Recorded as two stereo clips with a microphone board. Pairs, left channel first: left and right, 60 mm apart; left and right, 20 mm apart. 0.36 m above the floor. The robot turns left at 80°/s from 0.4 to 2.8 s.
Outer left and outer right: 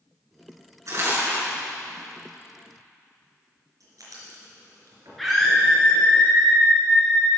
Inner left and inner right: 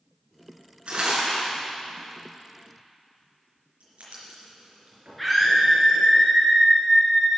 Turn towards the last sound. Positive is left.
turn(degrees=0)  # may be behind; listen again after turning